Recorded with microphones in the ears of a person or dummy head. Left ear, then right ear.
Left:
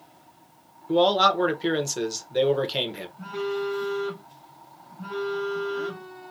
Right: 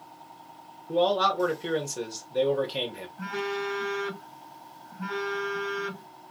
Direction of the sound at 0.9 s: 30° left (ahead or behind).